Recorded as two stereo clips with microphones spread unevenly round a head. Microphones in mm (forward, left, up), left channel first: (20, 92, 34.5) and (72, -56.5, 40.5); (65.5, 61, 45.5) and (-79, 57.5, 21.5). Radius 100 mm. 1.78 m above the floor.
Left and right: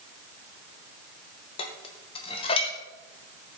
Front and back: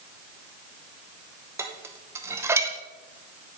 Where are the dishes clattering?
110° left, 0.9 m.